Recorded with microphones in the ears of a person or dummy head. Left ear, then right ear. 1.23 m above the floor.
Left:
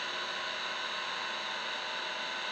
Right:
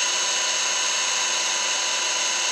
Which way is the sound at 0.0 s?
80° right.